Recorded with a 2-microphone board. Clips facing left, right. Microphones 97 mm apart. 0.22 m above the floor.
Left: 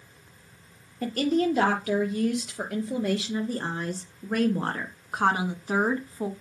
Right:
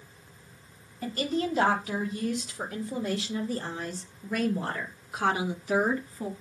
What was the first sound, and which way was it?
A woman speaking, 75° left (ahead or behind).